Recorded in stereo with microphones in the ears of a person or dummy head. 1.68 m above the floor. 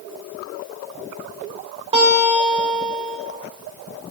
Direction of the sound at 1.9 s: 30° right (ahead or behind).